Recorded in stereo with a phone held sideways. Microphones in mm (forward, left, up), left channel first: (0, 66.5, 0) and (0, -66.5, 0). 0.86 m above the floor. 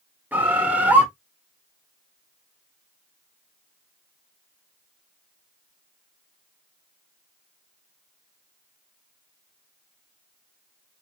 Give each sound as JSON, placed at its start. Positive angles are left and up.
{"t": 0.3, "sound": "a bird", "side_deg": -10, "distance_m": 1.9}